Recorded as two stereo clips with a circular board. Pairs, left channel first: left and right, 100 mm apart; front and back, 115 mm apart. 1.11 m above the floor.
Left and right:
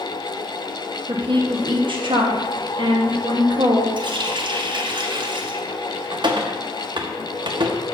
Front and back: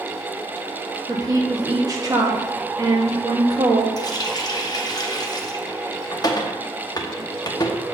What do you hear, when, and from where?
1.1 s a woman speaking: 120° right, 1.4 m
4.0 s a running tap: 55° right, 1.0 m